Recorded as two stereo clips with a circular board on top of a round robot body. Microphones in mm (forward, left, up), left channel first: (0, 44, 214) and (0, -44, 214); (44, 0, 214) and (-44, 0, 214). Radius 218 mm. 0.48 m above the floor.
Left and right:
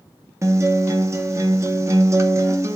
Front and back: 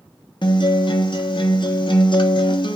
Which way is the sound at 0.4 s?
30° right.